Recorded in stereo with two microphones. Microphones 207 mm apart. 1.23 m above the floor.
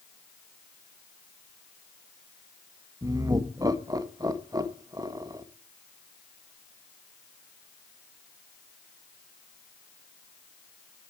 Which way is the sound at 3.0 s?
20° right (ahead or behind).